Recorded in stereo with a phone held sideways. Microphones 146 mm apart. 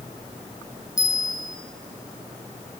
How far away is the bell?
About 1.5 m.